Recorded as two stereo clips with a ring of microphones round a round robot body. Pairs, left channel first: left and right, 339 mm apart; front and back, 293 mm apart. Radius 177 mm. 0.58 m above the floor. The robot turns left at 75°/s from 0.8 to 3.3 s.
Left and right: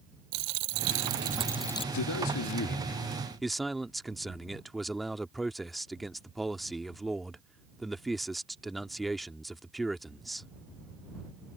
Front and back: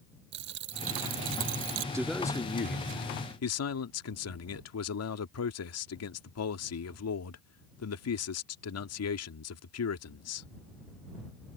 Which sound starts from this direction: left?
A man speaking, at 1.9 s.